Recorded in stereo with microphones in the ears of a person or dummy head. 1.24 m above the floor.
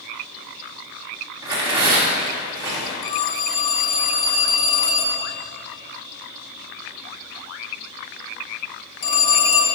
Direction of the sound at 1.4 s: 15° right (ahead or behind).